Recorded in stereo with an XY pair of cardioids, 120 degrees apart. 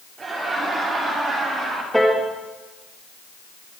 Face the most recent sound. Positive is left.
turn(degrees=0)